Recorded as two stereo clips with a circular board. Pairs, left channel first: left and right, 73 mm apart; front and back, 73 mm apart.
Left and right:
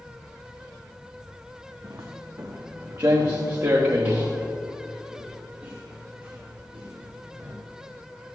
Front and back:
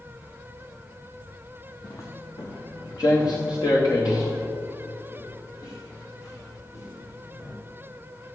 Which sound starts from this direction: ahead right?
Footsteps, at 1.8 s.